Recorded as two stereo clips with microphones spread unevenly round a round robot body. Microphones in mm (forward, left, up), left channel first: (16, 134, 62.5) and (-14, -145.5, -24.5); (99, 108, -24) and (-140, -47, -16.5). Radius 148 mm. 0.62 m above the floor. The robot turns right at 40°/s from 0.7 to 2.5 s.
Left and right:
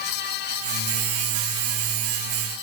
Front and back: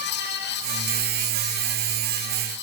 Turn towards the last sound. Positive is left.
No sound to turn to.